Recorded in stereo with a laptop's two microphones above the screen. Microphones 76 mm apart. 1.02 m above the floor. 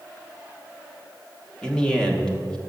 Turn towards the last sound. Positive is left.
turn(degrees=10)  # may be behind; listen again after turning